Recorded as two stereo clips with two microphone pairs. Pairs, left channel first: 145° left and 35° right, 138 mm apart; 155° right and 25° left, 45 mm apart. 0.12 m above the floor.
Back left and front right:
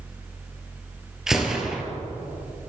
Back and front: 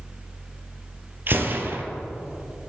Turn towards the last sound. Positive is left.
turn(degrees=50)